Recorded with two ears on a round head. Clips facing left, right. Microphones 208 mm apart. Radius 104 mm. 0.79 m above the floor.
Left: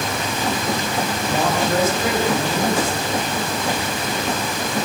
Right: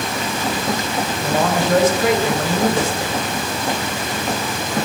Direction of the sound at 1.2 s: 60° right (ahead or behind).